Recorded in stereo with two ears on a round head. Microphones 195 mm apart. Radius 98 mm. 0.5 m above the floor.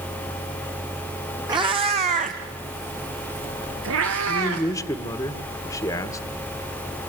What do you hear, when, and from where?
1.5 s a cat meowing: 20° right (ahead or behind), 3 m; by 4.7 s 80° right, 4.5 m
4.3 s a man speaking: 15° left (ahead or behind), 1.6 m